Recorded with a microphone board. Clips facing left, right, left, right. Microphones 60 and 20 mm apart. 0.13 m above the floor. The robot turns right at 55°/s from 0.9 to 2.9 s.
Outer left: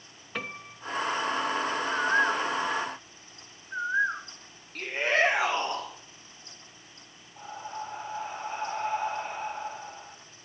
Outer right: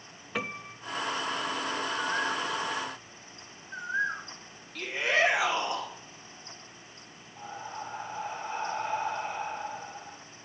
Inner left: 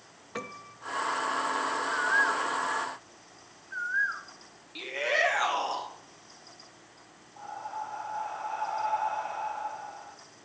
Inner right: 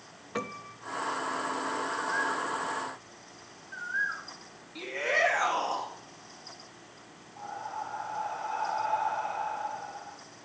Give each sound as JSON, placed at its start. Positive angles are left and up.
{"t": 0.3, "sound": "a piano", "side_deg": -5, "distance_m": 0.6}
{"t": 1.9, "sound": "a bird", "side_deg": 55, "distance_m": 1.4}
{"t": 4.8, "sound": "a shout", "side_deg": 45, "distance_m": 4.0}
{"t": 7.4, "sound": "breathing", "side_deg": 40, "distance_m": 10.0}